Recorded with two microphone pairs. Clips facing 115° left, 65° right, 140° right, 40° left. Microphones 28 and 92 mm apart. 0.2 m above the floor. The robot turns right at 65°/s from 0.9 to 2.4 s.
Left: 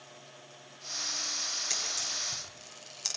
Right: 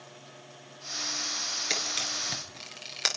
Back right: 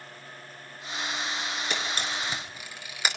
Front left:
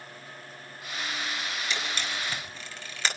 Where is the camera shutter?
110° right, 4 m; by 3.1 s 65° right, 4 m.